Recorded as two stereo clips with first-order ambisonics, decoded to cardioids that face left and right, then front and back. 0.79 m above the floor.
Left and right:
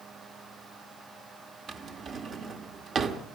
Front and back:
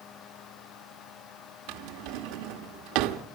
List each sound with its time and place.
1.7 s a drawer: 155° right, 1.4 m